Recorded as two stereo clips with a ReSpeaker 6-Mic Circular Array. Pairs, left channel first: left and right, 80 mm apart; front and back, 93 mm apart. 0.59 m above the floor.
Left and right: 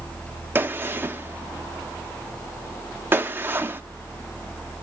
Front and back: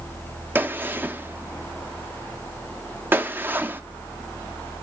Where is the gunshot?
130° right, 0.5 m.